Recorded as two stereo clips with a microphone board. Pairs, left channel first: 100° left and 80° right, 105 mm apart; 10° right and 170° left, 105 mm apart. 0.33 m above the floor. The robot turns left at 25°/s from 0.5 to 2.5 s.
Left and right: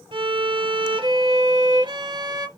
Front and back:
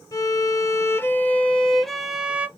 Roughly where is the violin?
Ahead right.